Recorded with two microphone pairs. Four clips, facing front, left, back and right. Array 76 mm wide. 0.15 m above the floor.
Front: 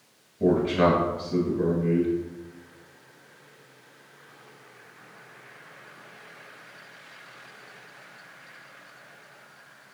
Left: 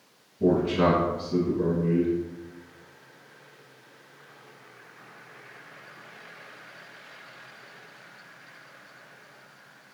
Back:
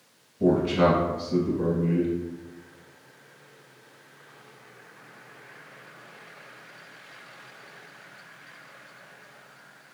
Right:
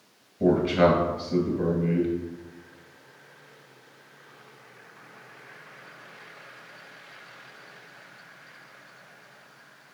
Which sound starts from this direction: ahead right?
A man speaking, at 0.4 s.